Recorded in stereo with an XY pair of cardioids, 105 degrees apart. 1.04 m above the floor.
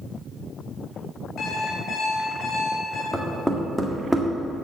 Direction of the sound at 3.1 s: 5° right.